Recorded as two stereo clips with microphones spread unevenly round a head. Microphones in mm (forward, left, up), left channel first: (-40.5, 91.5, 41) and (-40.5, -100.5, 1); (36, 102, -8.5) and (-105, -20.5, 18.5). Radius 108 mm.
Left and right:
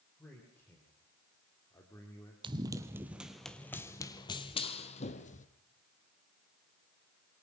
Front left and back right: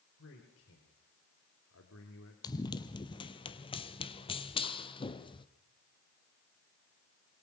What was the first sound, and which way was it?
A man speaking, 10° left.